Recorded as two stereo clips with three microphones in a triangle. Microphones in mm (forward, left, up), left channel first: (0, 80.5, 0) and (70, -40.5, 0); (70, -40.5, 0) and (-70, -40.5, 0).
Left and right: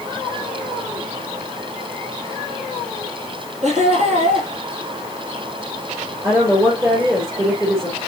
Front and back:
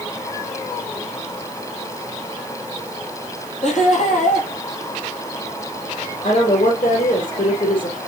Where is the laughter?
30° right, 3.5 m.